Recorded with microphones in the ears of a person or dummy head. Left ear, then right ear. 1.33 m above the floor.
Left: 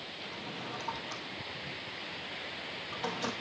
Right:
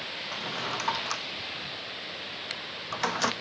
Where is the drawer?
55° right (ahead or behind), 0.9 m.